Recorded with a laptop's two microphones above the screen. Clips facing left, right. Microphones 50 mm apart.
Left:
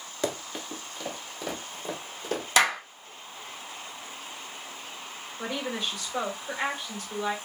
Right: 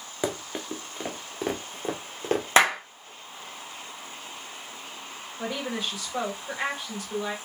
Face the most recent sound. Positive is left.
turn(degrees=-5)  # may be behind; listen again after turning